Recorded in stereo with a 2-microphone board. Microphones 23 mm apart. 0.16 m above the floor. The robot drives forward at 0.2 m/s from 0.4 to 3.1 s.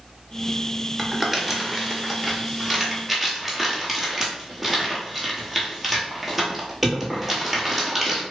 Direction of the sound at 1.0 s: 5° right (ahead or behind).